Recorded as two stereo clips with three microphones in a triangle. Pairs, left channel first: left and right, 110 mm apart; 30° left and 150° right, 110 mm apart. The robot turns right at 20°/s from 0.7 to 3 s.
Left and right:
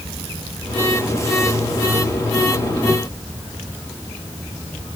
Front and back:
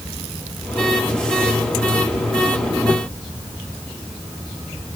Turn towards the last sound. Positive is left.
No sound to turn to.